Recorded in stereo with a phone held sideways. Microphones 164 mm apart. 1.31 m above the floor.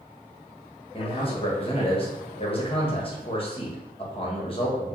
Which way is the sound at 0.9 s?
35° left (ahead or behind).